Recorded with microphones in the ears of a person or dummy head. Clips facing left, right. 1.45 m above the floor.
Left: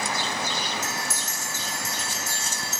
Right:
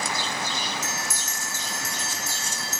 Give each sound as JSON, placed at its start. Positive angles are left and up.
{"t": 0.8, "sound": "a bell", "side_deg": -65, "distance_m": 6.5}